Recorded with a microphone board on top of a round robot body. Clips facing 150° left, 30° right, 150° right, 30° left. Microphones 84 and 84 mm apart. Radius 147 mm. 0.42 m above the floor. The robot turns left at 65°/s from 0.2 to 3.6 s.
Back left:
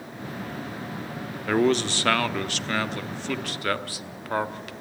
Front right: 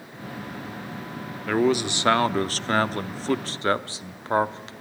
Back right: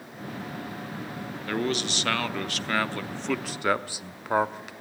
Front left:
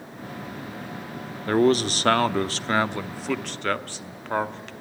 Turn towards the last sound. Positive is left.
turn(degrees=-75)